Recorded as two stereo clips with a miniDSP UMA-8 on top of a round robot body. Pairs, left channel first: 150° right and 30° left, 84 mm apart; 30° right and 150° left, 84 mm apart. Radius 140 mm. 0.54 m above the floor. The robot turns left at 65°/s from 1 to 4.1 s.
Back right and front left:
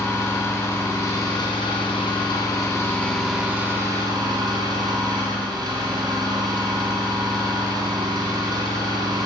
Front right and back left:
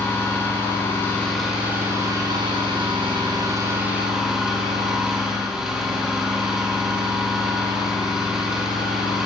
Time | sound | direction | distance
0.0 | an engine running | 90° right | 2.5 m